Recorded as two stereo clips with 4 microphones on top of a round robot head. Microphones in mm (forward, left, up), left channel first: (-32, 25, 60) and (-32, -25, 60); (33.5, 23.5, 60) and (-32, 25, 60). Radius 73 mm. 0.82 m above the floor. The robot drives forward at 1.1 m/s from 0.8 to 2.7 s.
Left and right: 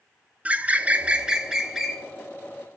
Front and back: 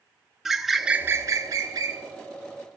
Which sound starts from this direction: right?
A bird, at 0.5 s.